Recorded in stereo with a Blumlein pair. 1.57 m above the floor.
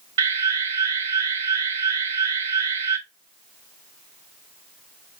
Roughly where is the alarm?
Ahead right.